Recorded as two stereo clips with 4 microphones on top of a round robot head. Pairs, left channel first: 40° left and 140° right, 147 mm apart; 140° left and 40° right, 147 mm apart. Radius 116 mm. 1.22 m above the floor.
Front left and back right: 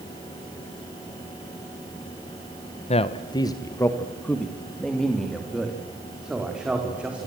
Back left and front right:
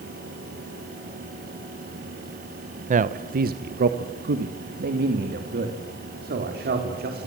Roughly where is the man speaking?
Ahead.